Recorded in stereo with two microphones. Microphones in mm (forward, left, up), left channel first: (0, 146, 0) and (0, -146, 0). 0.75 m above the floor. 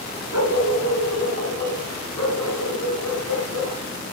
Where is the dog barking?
85° right, 2 m; by 4.1 s 60° right (ahead or behind), 5 m.